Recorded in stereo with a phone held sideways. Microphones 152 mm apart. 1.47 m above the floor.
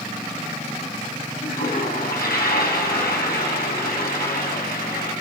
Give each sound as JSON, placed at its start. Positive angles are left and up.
{"t": 1.4, "sound": "a toilet flushing", "side_deg": 80, "distance_m": 8.5}